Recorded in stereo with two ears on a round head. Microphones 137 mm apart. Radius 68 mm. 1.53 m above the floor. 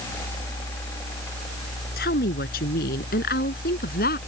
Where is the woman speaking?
70° left (ahead or behind); by 4.2 s 65° left (ahead or behind).